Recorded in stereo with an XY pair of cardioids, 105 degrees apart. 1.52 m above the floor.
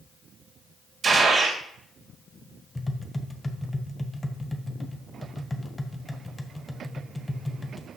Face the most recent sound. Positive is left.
turn(degrees=15)